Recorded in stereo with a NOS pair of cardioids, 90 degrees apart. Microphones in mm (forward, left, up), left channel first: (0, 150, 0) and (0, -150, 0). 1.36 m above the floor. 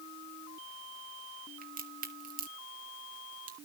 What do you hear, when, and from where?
1.6 s a crack: 30° right, 1.8 m